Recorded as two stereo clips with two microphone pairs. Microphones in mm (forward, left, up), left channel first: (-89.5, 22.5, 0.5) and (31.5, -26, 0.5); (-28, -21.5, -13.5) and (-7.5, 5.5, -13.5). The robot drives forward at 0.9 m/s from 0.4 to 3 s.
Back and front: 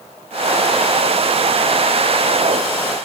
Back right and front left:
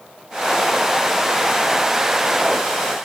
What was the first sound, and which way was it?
Only background noise.